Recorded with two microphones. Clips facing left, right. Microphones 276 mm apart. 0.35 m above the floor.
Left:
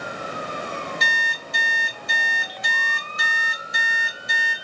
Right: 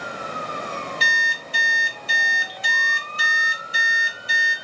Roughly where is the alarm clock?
Right.